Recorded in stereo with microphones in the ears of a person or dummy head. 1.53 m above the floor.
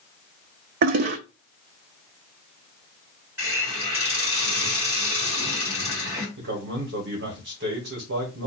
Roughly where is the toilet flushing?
Right.